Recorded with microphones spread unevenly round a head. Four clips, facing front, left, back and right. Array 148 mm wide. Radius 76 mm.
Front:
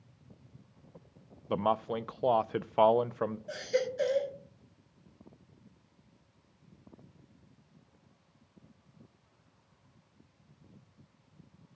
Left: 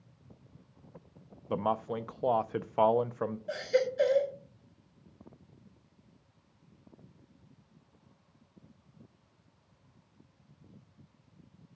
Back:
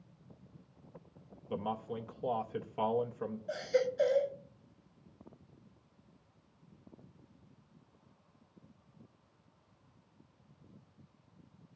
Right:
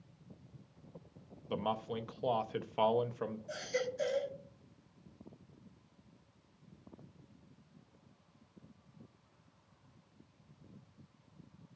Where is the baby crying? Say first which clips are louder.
Left 11 dB, back 3 dB; 50° left, 4 m.